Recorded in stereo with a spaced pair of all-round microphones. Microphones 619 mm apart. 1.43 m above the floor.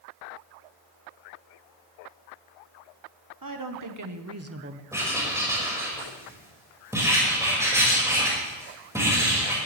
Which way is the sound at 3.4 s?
35° right (ahead or behind).